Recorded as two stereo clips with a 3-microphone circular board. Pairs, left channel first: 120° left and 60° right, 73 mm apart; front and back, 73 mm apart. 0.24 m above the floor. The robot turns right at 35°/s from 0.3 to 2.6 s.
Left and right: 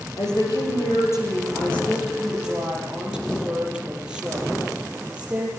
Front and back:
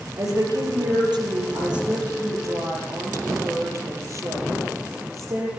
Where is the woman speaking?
145° left, 7.5 m; by 5.5 s 135° right, 7.5 m.